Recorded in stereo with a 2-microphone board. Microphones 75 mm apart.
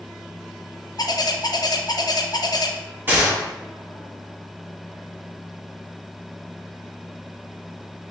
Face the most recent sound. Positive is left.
turn(degrees=-25)  # may be behind; listen again after turning